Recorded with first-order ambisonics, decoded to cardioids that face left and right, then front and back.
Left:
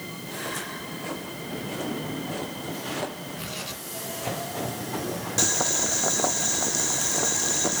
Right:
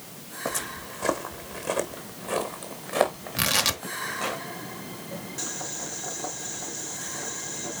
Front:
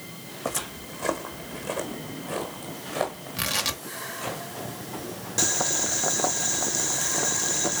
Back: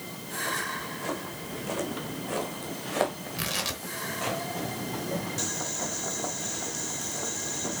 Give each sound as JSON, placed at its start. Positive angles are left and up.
{"t": 0.5, "sound": "footsteps", "azimuth_deg": -30, "distance_m": 1.1}
{"t": 3.4, "sound": "tearing paper", "azimuth_deg": -75, "distance_m": 0.9}
{"t": 5.4, "sound": "boiling", "azimuth_deg": 55, "distance_m": 0.7}